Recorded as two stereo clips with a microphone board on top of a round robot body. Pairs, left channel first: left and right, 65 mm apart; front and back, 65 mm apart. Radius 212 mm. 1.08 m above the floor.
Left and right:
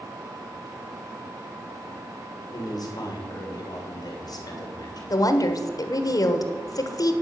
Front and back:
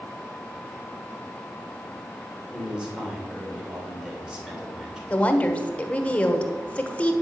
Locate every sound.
2.5 s a man speaking: 100° left, 3 m
5.1 s a woman speaking: 70° left, 1.4 m